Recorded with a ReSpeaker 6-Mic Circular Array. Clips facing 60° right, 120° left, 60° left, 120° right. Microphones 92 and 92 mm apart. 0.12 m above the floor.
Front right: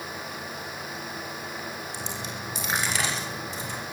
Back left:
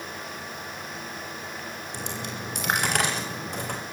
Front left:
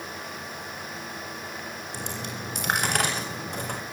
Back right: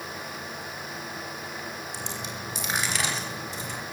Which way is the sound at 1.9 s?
90° left.